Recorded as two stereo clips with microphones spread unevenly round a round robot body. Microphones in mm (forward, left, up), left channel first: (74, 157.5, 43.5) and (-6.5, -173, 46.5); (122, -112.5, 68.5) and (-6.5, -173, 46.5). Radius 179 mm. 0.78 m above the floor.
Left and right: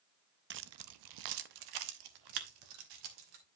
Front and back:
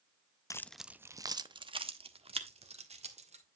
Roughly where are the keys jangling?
Ahead right.